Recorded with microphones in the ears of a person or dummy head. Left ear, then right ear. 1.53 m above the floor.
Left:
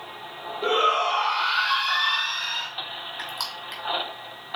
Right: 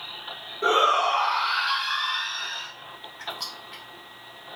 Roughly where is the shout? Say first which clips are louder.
Right 1 dB; right.